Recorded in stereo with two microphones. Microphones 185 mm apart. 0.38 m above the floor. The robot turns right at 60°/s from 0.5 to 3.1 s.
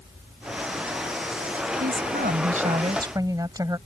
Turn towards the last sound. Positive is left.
turn(degrees=-25)